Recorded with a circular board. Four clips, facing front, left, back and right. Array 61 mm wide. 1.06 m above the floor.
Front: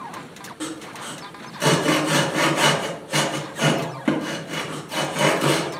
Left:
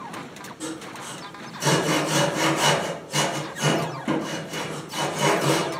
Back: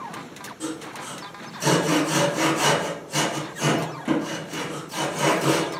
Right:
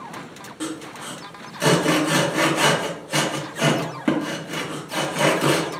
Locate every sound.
0.6 s sawing: 45° right, 0.9 m